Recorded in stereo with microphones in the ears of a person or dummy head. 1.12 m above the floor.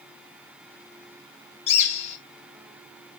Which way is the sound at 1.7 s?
35° left (ahead or behind).